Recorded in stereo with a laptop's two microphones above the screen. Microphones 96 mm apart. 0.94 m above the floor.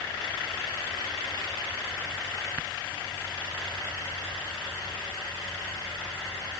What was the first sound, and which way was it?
Only background noise.